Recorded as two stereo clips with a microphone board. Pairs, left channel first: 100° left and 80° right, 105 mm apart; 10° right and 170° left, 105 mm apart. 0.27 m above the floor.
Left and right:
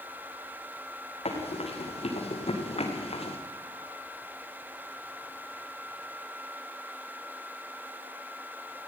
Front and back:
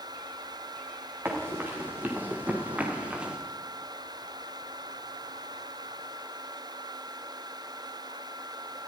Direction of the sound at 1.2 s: 100° left.